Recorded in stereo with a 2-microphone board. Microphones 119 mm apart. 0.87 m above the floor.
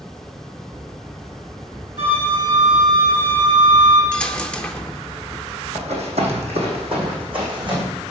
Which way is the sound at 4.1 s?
10° left (ahead or behind).